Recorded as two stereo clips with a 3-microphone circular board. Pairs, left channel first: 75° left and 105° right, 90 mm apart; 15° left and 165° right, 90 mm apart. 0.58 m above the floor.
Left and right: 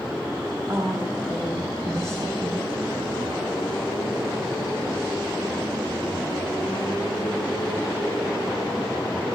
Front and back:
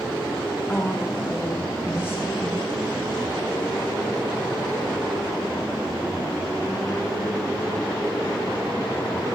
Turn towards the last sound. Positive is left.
turn(degrees=-45)